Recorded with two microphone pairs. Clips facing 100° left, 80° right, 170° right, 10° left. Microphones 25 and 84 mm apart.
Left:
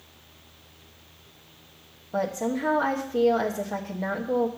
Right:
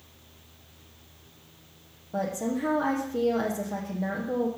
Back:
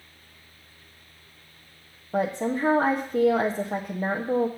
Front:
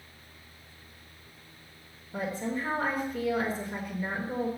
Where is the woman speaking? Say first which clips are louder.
Left 2 dB, back 7 dB; 170° left, 1.0 m.